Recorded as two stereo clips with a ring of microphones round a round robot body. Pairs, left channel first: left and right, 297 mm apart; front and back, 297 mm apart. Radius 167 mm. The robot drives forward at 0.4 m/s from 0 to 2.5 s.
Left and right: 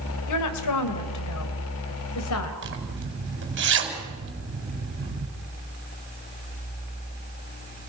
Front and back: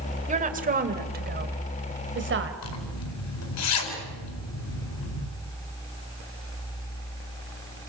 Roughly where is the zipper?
Ahead right.